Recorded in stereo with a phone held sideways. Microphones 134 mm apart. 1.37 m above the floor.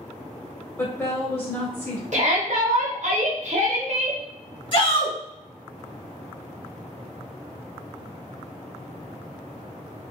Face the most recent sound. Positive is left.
turn(degrees=40)  # may be behind; listen again after turning